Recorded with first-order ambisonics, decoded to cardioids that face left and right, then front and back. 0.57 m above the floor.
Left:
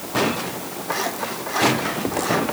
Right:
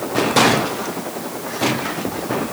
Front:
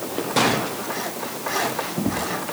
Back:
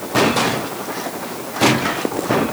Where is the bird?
I don't hear a bird.